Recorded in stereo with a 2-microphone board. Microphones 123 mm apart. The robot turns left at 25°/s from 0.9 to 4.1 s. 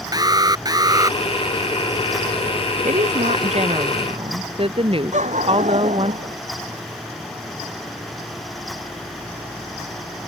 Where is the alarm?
35° right (ahead or behind); by 1.2 s 30° right (ahead or behind).